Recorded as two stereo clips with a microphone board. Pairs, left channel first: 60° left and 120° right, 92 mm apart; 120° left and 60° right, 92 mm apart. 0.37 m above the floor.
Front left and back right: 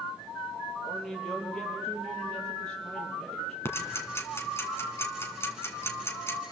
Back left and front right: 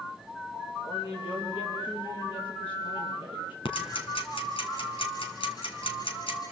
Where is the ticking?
120° left, 2.5 m.